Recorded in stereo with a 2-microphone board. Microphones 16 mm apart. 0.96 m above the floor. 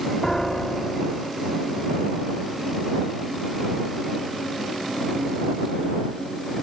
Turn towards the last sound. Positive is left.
turn(degrees=40)  # may be behind; listen again after turning